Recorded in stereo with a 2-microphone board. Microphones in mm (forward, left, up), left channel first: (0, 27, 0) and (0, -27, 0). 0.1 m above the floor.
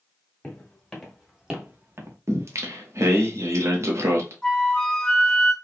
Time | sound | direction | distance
0.4 | footsteps | 15° left (ahead or behind) | 2.5 m
2.3 | singing | 55° right (ahead or behind) | 1.0 m
4.4 | a flute | 15° left (ahead or behind) | 0.9 m